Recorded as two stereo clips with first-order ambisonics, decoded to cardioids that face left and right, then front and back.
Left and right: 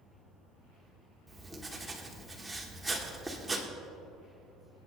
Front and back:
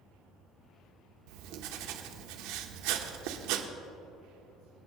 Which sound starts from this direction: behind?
Writing, at 1.3 s.